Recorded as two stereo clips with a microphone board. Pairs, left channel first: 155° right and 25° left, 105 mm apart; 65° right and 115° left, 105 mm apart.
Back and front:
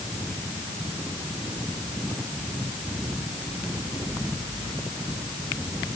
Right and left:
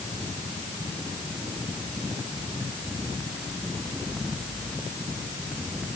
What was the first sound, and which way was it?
Only background noise.